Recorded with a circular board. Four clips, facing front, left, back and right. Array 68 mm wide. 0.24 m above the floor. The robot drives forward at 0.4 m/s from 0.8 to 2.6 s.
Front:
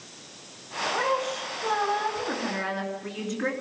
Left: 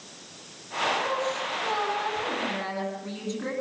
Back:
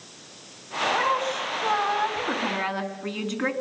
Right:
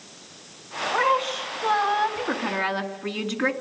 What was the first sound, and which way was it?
A woman speaking, 105° right.